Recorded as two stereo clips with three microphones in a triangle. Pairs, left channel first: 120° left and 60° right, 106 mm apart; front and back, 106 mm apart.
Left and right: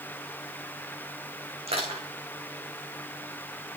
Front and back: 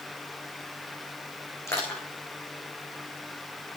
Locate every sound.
1.7 s crushing: 60° right, 7 m